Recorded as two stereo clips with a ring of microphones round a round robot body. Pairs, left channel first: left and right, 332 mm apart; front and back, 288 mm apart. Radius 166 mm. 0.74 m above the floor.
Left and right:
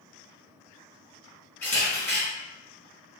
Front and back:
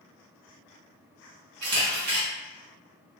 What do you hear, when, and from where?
1.6 s a camera shutter: 175° left, 0.9 m